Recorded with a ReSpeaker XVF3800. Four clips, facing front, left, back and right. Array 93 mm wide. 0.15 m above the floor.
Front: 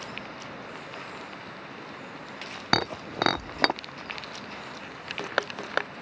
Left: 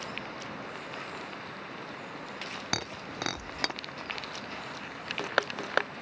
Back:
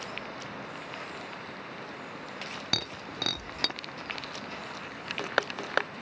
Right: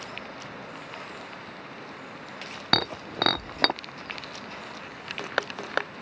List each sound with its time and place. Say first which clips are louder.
2.7 s breaking glass: right 11 dB, front 13 dB; 40° right